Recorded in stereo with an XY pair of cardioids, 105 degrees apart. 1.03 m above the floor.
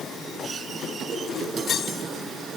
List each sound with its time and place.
Only background noise.